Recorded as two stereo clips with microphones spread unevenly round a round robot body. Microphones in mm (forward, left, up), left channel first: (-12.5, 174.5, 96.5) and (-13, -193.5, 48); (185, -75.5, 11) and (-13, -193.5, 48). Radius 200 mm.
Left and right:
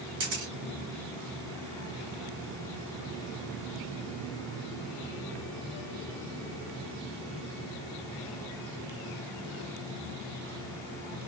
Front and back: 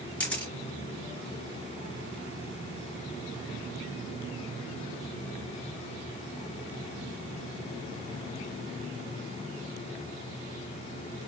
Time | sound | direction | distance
0.2 | a camera shutter | 50° right | 3 m